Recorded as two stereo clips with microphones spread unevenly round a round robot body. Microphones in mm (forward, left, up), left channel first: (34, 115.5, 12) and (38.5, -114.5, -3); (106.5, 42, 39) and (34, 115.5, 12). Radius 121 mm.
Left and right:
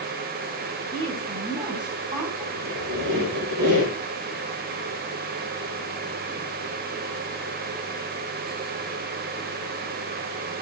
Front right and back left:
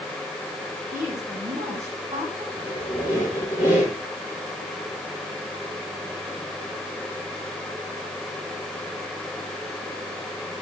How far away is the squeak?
About 5 m.